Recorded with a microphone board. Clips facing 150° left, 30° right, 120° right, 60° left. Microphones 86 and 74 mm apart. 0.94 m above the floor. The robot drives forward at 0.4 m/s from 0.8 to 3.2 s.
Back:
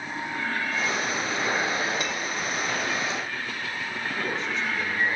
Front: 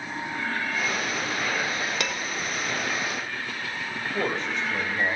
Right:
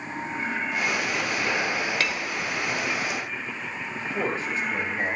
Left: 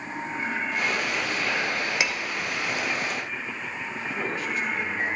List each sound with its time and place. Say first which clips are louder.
2.0 s dishes clattering: even, even; 20° right, 1.2 m
4.0 s a man speaking: front 3 dB, right 3 dB; 60° right, 4.5 m